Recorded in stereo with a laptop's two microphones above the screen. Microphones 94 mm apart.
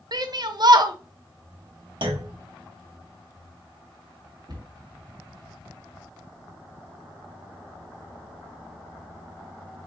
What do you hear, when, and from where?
0.1 s a shout: 50° right (ahead or behind), 0.6 m
2.0 s a clunk: 65° right (ahead or behind), 0.9 m
4.5 s a cupboard door: 55° right (ahead or behind), 1.2 m